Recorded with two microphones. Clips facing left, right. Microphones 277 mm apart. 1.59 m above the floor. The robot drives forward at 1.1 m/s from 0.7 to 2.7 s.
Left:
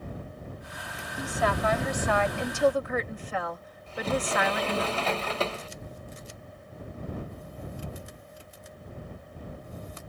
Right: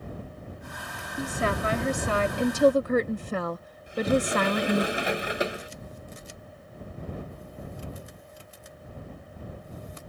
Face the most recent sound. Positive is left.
turn(degrees=-15)  # may be behind; listen again after turning